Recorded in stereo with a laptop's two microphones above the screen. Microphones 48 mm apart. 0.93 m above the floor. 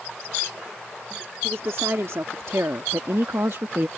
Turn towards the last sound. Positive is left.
turn(degrees=-60)  # may be behind; listen again after turning